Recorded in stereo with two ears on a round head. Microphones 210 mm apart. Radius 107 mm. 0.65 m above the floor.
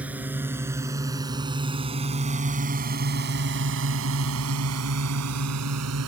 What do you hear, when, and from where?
0.0 s a drone: 5° right (ahead or behind); by 6.1 s 70° right (ahead or behind)